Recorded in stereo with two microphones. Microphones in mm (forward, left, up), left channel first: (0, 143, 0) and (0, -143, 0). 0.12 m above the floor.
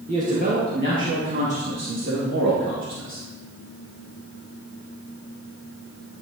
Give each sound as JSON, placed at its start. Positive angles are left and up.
{"t": 0.1, "sound": "a man speaking", "side_deg": -25, "distance_m": 2.0}